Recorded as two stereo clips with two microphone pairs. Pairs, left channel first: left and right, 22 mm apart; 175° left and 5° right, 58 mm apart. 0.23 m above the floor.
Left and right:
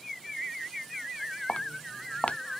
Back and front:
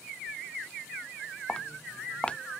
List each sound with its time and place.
1.5 s footsteps: 105° left